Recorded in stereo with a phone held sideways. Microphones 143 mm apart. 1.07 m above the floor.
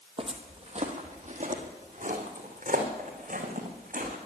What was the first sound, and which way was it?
Footsteps, 40° right (ahead or behind).